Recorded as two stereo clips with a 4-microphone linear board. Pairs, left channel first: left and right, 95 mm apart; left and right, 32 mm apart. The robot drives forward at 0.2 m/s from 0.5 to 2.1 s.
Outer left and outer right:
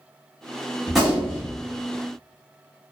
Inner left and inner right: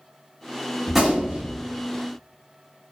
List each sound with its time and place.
0.9 s a gunshot: centre (ahead or behind), 1.0 m